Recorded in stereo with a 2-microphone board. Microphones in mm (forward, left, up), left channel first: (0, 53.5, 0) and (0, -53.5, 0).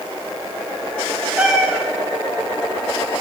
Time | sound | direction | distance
1.4 | a cat meowing | 10° right (ahead or behind) | 1.1 m